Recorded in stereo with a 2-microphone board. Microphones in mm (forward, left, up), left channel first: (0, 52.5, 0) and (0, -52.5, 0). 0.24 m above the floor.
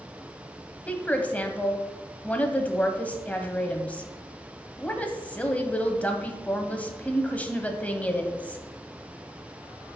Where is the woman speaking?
15° left (ahead or behind), 1.1 m.